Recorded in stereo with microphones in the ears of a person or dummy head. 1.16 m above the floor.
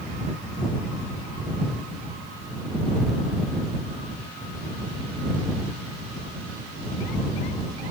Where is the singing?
I don't hear singing.